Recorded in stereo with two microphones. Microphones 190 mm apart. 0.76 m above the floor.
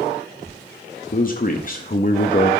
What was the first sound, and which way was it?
A man speaking, 45° left (ahead or behind).